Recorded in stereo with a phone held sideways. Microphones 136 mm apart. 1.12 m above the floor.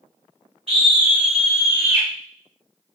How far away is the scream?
About 0.9 m.